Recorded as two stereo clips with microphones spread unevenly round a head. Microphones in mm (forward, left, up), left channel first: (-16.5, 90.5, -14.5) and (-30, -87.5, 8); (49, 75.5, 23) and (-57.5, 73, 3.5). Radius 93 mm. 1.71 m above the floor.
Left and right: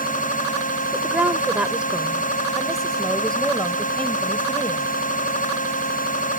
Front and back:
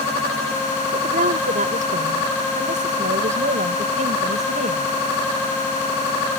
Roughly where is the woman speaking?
Behind.